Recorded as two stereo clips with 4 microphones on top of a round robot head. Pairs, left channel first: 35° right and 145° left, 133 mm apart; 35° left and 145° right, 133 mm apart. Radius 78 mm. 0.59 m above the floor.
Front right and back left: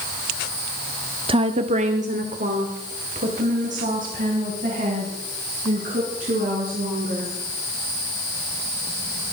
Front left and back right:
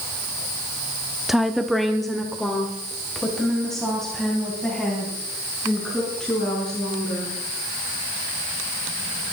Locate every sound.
1.3 s a woman speaking: 130° left, 0.8 m; by 7.3 s 120° left, 7.5 m